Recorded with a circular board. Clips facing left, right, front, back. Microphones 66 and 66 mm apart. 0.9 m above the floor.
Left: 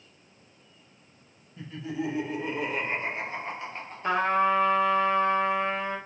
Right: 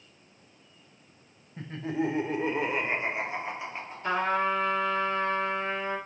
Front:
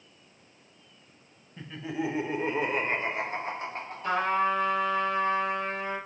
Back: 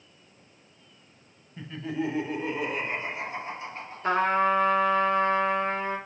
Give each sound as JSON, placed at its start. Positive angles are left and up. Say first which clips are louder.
{"t": 1.6, "sound": "laughter", "louder": "right 3 dB, back 2 dB", "azimuth_deg": -95, "distance_m": 0.8}
{"t": 4.0, "sound": "a trumpet", "louder": "left 3 dB, back 3 dB", "azimuth_deg": 150, "distance_m": 0.9}